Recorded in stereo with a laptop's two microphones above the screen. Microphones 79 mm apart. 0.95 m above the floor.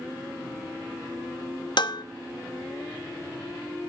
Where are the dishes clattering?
70° left (ahead or behind), 0.7 m.